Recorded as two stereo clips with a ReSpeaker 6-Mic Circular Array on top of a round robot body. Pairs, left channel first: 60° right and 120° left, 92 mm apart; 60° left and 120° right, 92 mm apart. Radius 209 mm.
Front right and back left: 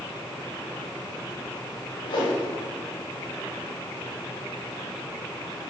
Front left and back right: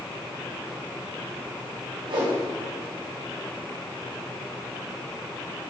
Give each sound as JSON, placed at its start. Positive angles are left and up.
{"t": 2.1, "sound": "a whoosh", "azimuth_deg": -90, "distance_m": 4.5}